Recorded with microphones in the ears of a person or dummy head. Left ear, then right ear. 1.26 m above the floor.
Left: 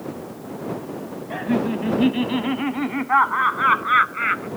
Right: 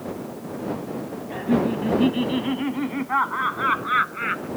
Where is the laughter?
30° left (ahead or behind); by 4.5 s 20° left (ahead or behind).